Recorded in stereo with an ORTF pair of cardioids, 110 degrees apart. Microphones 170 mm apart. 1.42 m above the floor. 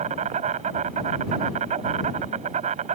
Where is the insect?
45° right.